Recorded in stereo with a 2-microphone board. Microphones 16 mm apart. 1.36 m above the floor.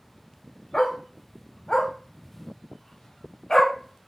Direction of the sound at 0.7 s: 35° left (ahead or behind).